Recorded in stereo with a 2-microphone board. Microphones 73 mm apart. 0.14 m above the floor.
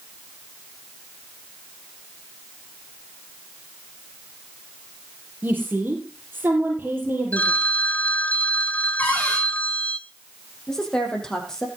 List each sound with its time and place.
5.4 s a woman speaking: 30° right (ahead or behind), 4.5 m
7.3 s a phone ringing: 20° left (ahead or behind), 0.8 m
9.0 s a cupboard door: 20° left (ahead or behind), 8 m
10.7 s a woman speaking: 10° left (ahead or behind), 4 m